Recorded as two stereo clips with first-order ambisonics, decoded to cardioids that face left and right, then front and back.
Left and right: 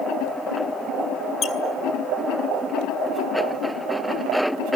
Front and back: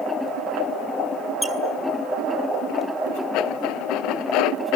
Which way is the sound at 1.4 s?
90° left.